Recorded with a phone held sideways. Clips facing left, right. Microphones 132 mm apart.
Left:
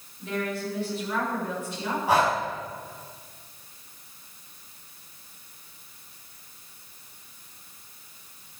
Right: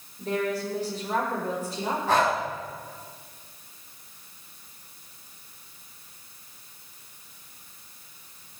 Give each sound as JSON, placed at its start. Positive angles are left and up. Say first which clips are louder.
{"t": 0.2, "sound": "a woman speaking", "louder": "right 3 dB", "side_deg": -40, "distance_m": 6.0}
{"t": 2.1, "sound": "breathing", "louder": "left 1 dB", "side_deg": 10, "distance_m": 5.5}